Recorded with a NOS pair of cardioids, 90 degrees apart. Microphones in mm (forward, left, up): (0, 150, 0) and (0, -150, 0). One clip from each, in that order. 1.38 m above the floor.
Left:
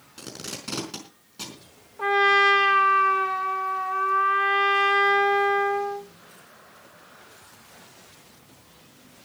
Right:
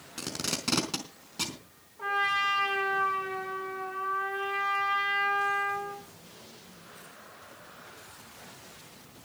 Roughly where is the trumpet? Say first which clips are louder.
Left 9 dB; left.